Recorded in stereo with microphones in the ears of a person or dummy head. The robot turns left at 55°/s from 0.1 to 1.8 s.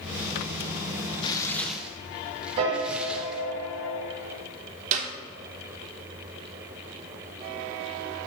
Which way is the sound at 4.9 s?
40° right (ahead or behind).